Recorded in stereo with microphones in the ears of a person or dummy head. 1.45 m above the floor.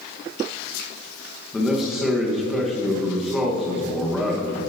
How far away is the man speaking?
About 1.4 m.